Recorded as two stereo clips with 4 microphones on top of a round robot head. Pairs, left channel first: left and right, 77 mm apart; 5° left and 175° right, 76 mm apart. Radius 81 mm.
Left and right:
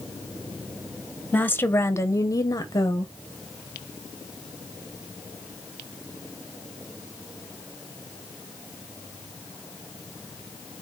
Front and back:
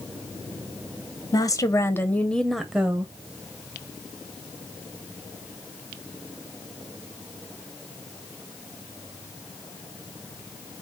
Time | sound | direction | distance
1.3 | a woman speaking | 25° left | 1.1 m